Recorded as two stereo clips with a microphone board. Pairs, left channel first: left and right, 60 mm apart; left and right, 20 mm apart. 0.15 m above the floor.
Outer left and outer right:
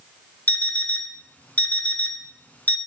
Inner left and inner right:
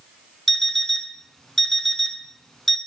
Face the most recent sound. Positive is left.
turn(degrees=25)  # may be behind; listen again after turning